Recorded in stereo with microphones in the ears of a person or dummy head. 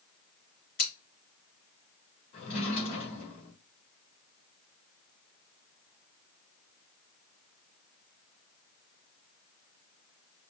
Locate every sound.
0.8 s scissors: 60° left (ahead or behind), 3.5 m
2.3 s a drawer: 45° left (ahead or behind), 3 m